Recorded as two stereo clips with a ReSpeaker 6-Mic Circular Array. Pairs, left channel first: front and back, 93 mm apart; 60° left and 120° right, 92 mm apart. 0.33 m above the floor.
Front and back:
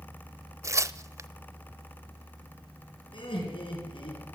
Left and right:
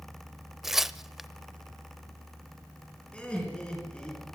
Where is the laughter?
15° right, 5.5 m.